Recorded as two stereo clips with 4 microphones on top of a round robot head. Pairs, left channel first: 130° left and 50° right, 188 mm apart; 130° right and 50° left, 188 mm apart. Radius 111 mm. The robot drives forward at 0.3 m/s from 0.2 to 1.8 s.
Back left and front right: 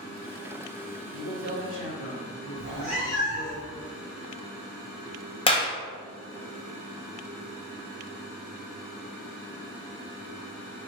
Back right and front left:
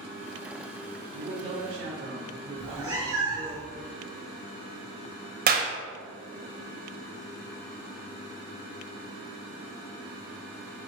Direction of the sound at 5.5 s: 70° left.